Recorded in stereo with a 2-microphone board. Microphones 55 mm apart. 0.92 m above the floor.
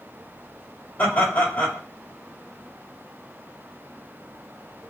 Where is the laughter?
35° left (ahead or behind), 3 m.